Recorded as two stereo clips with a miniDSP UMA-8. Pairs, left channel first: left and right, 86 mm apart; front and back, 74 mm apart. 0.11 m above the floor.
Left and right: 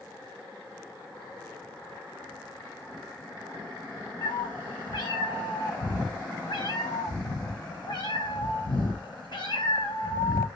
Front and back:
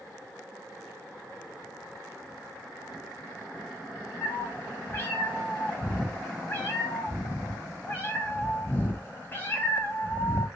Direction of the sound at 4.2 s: 60° left.